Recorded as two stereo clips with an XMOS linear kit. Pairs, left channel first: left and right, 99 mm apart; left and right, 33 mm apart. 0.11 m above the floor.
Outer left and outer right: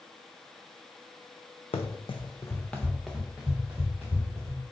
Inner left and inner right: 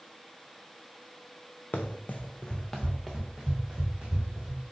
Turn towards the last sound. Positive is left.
turn(degrees=-20)  # may be behind; listen again after turning